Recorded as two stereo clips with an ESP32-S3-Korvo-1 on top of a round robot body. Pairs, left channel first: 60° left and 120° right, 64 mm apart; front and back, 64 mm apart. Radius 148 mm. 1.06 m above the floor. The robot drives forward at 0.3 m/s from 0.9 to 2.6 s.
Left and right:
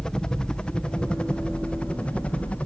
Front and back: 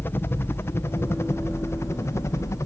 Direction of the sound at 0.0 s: 10° right.